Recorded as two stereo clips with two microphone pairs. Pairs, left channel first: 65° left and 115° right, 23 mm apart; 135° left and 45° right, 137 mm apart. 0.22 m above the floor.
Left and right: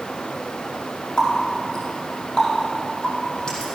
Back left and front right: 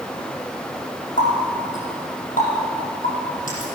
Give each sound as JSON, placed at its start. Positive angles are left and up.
{"t": 1.2, "sound": "a running tap", "azimuth_deg": 115, "distance_m": 4.5}